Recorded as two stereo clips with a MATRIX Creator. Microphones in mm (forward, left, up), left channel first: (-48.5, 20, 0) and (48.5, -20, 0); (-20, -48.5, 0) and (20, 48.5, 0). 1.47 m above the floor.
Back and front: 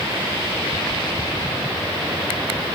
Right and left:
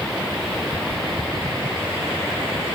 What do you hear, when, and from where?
Only background noise.